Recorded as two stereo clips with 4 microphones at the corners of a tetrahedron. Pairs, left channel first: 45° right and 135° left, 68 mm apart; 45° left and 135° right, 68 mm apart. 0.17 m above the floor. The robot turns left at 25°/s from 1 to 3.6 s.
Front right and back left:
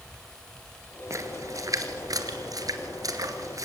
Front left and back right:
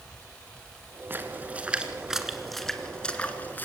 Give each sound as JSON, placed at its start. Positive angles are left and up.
{"t": 1.1, "sound": "a splash", "azimuth_deg": 170, "distance_m": 1.8}